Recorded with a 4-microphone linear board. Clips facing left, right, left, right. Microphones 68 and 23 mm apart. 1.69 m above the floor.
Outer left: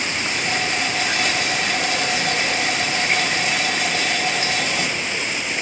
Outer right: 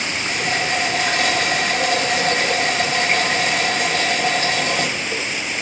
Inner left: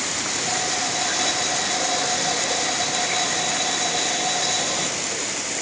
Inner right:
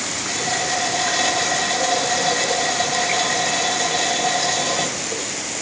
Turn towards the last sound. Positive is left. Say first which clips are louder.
# outer right 3 dB, inner right 4 dB
turn(degrees=-45)  # may be behind; listen again after turning